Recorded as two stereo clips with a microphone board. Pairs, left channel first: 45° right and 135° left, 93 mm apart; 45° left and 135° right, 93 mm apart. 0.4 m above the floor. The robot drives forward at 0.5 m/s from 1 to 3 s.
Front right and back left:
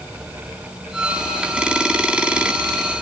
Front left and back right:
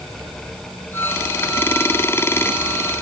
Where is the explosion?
I don't hear an explosion.